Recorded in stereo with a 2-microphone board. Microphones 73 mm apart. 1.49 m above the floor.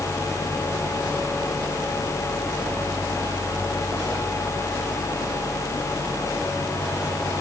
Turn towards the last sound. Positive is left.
No sound to turn to.